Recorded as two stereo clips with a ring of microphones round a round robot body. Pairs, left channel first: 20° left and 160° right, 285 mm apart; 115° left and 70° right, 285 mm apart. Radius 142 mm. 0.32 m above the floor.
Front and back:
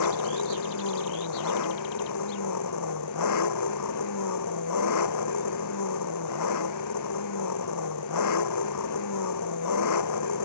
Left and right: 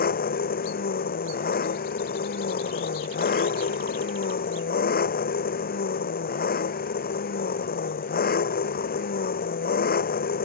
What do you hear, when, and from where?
0.0 s an engine running: 50° left